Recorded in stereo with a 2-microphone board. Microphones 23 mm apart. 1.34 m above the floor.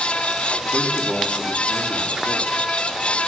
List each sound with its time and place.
0.7 s a man speaking: 60° right (ahead or behind), 3.5 m